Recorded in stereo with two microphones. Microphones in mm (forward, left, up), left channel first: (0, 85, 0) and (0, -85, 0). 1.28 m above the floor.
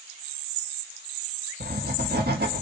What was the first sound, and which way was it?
Writing, 60° right (ahead or behind).